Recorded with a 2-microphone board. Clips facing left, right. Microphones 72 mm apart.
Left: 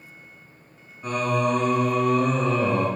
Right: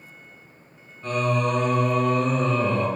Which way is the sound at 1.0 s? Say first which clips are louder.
Even; 20° left (ahead or behind).